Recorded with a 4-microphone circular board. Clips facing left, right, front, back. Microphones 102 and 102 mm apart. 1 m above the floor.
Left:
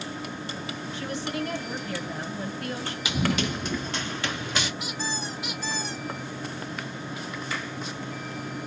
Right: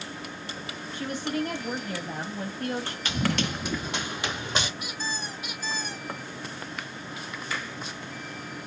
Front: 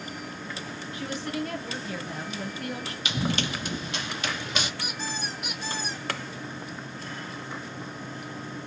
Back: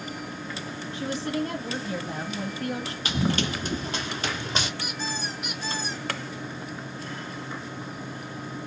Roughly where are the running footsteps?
Behind.